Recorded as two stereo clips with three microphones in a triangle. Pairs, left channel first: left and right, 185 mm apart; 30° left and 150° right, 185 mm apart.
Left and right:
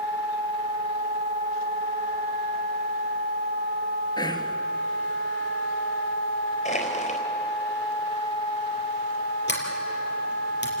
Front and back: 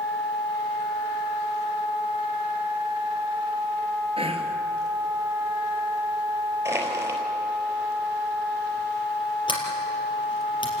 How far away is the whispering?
About 2.5 m.